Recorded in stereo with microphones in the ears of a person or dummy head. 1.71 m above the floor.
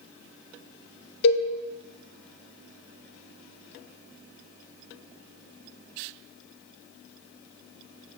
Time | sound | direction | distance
1.2 | a cowbell | 55° left (ahead or behind) | 1.0 m